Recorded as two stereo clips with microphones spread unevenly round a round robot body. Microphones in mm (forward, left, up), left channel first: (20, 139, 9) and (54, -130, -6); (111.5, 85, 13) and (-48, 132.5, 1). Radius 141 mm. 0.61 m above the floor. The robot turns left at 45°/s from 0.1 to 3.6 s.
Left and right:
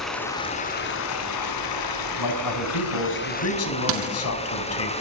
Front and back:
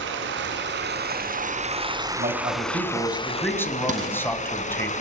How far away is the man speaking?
About 5.5 m.